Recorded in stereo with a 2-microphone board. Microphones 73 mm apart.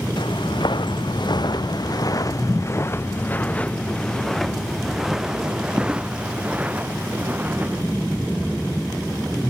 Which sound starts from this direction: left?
Footsteps, at 0.2 s.